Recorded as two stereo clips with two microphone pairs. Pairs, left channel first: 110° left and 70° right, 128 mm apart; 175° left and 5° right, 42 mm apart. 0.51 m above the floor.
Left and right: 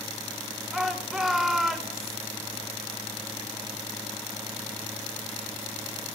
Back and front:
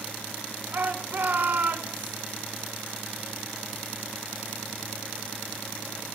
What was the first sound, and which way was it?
A shout, 15° left.